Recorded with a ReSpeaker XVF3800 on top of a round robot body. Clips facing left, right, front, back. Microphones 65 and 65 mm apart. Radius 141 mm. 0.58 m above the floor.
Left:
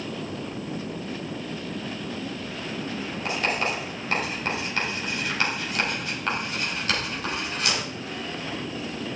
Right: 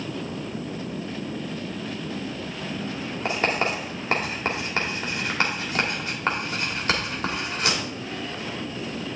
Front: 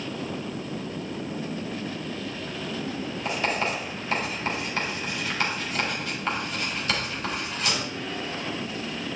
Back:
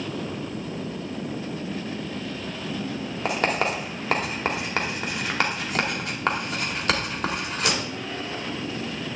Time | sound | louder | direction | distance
3.2 | writing | right 2 dB, back 3 dB | 150° right | 2 m